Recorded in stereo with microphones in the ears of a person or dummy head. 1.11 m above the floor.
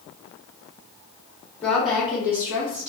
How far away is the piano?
I don't hear a piano.